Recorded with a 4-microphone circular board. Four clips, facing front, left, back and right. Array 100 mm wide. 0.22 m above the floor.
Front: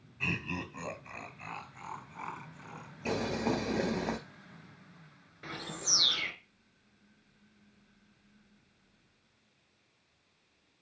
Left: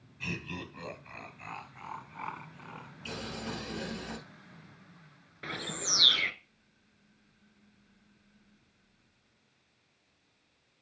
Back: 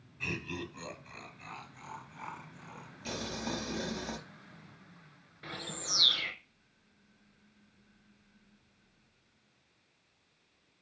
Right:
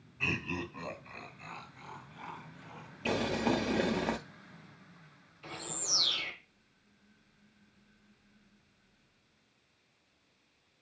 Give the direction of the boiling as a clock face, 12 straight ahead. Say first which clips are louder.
Right 10 dB, front 7 dB; 2 o'clock.